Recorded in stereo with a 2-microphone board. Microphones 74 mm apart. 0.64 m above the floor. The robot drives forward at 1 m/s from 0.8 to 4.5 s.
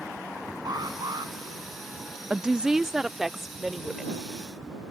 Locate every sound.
0.7 s an alarm: 75° right (ahead or behind); by 1.3 s 80° right
2.3 s a woman speaking: 15° right (ahead or behind); by 4.2 s 5° right (ahead or behind)